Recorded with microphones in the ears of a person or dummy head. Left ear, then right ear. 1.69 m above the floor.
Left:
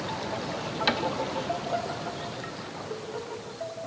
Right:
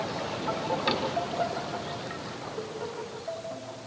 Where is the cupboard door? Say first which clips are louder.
Left 3 dB; 35° left (ahead or behind), 3.5 m.